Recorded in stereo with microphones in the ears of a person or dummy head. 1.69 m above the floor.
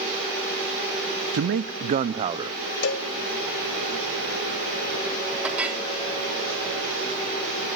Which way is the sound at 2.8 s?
75° left (ahead or behind).